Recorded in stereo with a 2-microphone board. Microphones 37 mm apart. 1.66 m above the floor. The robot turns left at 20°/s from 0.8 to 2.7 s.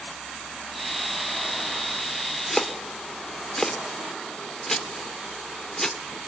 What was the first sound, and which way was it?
Chopping, 10° left (ahead or behind).